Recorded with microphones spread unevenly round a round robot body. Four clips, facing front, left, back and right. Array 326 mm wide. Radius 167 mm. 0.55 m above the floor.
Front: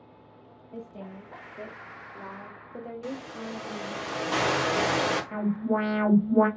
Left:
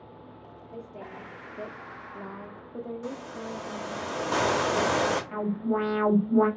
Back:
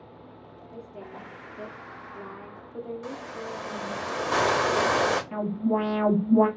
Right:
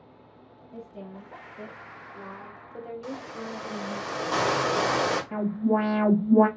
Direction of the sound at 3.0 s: 125° left.